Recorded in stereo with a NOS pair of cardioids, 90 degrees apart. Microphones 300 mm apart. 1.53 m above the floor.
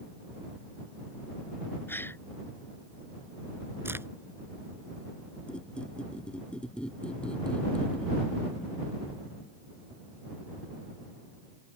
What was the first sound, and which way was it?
A gasp, 5° left.